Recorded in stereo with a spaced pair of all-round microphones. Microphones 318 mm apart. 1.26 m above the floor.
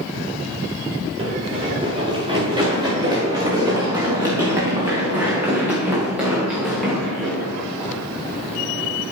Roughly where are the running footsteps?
Centre.